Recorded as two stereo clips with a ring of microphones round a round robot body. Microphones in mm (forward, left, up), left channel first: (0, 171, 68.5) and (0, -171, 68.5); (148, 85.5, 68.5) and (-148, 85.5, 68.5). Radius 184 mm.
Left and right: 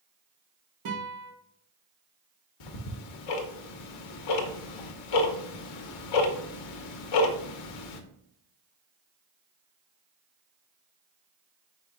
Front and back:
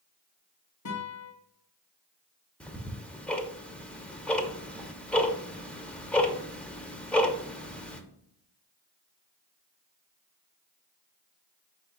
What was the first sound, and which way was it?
A guitar, 45° right.